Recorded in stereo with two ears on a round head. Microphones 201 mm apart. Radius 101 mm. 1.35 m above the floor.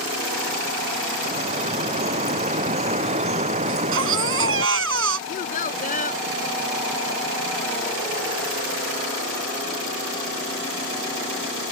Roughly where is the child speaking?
Left.